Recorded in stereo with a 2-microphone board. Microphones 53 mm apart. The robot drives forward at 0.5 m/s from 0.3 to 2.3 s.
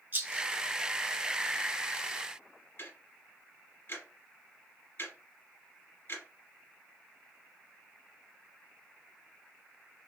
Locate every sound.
0.1 s a rattle: 35° right (ahead or behind), 0.9 m; by 0.5 s 40° right (ahead or behind), 0.8 m
2.8 s ticking: 45° left (ahead or behind), 2.5 m